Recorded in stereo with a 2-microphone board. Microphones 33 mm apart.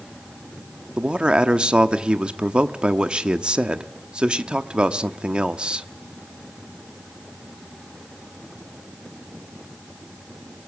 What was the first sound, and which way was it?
A man speaking, 30° right (ahead or behind).